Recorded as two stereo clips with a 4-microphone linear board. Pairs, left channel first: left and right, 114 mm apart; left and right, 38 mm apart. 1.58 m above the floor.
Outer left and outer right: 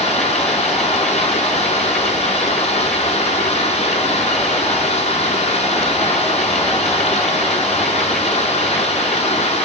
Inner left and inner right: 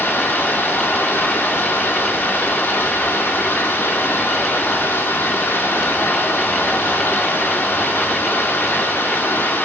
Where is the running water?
70° left (ahead or behind), 2.5 m.